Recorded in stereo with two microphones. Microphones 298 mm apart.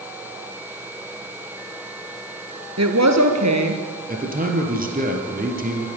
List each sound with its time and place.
2.8 s a woman speaking: 60° right (ahead or behind), 2.5 m; by 3.8 s 70° right (ahead or behind), 3.5 m
4.1 s a man speaking: 30° right (ahead or behind), 3.5 m